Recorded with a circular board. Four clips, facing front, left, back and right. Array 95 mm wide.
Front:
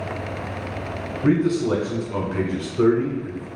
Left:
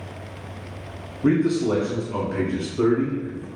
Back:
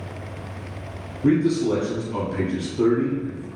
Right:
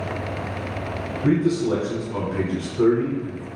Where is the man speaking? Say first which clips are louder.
Left 1 dB, even; 15° left, 1.2 m.